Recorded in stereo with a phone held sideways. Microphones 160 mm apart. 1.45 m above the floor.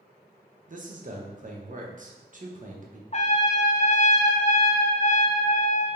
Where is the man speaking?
50° right (ahead or behind), 0.7 m.